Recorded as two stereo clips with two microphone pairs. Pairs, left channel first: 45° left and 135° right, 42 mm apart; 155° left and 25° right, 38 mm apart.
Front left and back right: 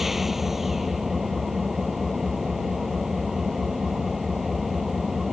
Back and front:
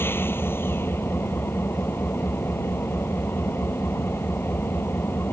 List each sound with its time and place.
0.0 s an engine running: 140° left